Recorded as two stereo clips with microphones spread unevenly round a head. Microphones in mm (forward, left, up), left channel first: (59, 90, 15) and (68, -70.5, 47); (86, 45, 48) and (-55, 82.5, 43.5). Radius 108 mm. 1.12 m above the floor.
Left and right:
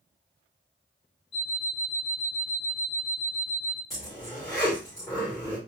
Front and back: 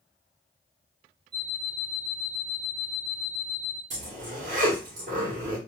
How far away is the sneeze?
I don't hear a sneeze.